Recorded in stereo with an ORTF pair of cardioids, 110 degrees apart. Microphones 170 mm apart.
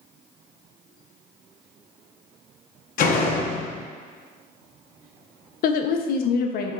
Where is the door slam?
55° left, 0.7 m.